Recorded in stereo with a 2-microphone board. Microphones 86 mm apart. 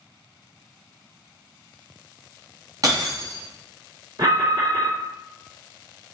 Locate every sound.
2.8 s breaking glass: 50° right (ahead or behind), 3.5 m
4.2 s an alarm: 55° right (ahead or behind), 2 m